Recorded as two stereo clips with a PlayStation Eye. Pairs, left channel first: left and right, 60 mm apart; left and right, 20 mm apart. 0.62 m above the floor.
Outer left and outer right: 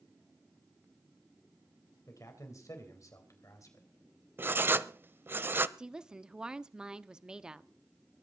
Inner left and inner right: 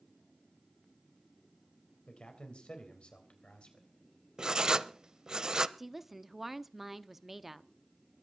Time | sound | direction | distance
2.1 | a man speaking | 65° left (ahead or behind) | 3.5 m
4.4 | writing | 40° right (ahead or behind) | 0.6 m
5.8 | a woman speaking | 15° right (ahead or behind) | 0.7 m